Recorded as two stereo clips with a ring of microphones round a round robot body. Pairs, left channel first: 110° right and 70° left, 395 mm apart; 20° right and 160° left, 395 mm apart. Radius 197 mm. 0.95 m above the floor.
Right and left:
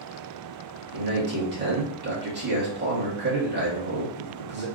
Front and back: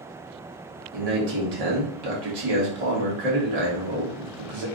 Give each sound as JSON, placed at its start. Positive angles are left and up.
{"t": 0.9, "sound": "a man speaking", "azimuth_deg": 130, "distance_m": 1.7}